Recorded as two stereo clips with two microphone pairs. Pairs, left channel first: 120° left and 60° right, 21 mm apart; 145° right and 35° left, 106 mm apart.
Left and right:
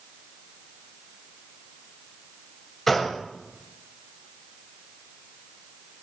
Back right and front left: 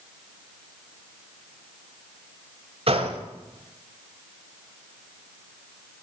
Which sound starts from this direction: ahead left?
A gunshot, at 2.9 s.